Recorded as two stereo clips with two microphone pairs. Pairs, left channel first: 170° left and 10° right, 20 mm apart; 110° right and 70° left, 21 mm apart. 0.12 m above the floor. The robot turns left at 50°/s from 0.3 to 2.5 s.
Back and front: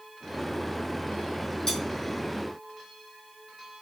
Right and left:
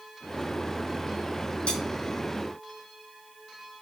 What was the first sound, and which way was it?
Cutlery clinking, 130° right.